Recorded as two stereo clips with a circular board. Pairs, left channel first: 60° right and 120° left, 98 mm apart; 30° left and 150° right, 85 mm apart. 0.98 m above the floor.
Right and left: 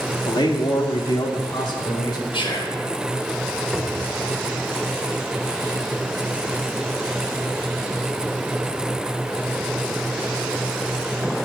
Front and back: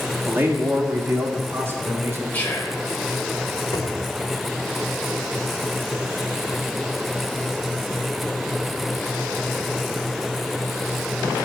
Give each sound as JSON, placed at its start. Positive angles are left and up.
{"t": 0.3, "sound": "a man speaking", "azimuth_deg": -90, "distance_m": 2.0}
{"t": 2.3, "sound": "whispering", "azimuth_deg": -40, "distance_m": 3.5}
{"t": 3.7, "sound": "a cupboard door", "azimuth_deg": 25, "distance_m": 2.0}